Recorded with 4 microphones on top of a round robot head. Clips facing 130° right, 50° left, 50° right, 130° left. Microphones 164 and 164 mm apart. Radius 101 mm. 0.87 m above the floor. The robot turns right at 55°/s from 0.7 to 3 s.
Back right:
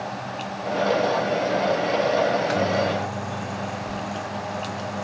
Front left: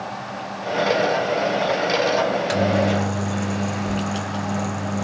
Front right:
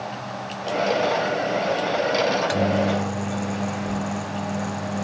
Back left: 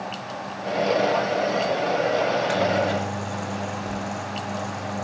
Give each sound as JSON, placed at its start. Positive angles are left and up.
{"t": 2.3, "sound": "a microwave", "azimuth_deg": -15, "distance_m": 0.9}